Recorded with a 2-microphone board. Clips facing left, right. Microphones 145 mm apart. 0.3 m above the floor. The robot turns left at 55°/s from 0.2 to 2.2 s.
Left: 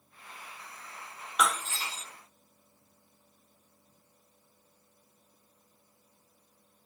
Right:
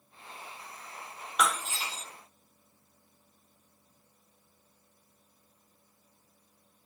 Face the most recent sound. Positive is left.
turn(degrees=-40)